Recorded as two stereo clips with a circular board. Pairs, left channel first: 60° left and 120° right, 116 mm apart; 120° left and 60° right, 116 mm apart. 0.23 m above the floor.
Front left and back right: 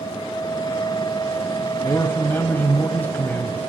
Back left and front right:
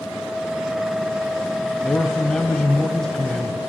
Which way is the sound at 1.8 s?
45° left.